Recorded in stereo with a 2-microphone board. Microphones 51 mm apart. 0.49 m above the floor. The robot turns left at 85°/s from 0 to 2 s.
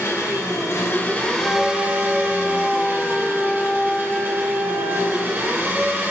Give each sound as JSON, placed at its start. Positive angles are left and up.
{"t": 0.0, "sound": "an engine running", "azimuth_deg": 130, "distance_m": 0.7}
{"t": 1.4, "sound": "a flute", "azimuth_deg": 65, "distance_m": 1.6}